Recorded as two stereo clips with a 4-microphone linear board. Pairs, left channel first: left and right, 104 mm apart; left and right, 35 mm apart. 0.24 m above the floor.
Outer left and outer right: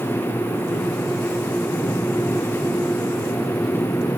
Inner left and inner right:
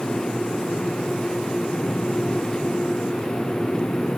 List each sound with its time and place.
Only background noise.